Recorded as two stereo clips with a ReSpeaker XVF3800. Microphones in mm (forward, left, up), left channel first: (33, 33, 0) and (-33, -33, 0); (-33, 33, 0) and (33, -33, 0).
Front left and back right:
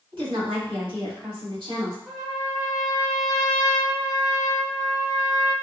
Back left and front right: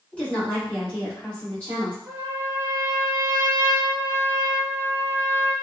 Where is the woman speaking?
150° right, 1.9 m.